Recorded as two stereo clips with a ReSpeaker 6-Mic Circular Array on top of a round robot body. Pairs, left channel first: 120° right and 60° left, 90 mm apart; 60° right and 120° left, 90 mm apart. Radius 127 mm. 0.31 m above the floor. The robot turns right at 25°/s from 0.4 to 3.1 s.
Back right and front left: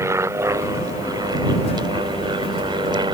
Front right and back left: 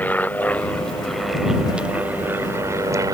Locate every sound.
0.0 s an aircraft: 10° left; by 3.1 s 75° left